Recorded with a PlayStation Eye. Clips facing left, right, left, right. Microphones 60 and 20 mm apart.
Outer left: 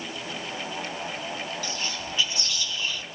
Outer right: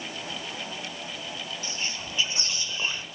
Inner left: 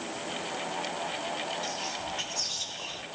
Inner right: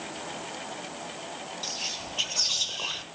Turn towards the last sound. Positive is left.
turn(degrees=-25)  # may be behind; listen again after turning